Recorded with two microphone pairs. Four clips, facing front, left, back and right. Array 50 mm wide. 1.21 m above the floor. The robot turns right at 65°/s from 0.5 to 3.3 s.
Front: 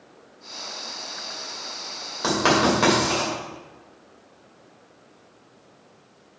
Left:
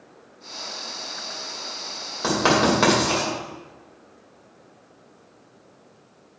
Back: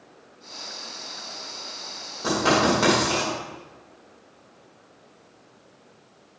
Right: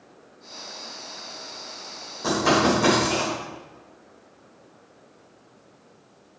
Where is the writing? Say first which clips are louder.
Left 1 dB, front 1 dB; 35° left, 3.5 m; by 3.3 s 100° left, 3.5 m.